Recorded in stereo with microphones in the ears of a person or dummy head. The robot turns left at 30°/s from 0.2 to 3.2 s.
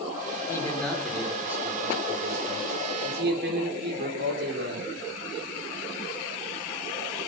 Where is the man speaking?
20° left, 6.5 m; by 4.9 s 60° right, 6.5 m.